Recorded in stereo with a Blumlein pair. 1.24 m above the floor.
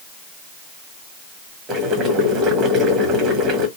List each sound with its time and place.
1.7 s boiling: 30° right, 1.1 m